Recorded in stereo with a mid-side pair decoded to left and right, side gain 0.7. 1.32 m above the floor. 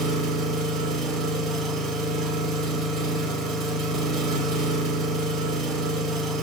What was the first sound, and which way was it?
An engine running, 40° right.